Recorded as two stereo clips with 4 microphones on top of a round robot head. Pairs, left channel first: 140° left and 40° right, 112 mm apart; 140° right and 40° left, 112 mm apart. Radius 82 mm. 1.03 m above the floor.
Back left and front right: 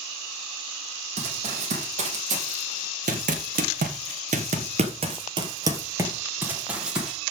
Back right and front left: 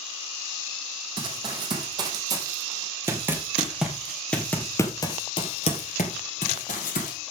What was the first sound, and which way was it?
Running footsteps, 10° right.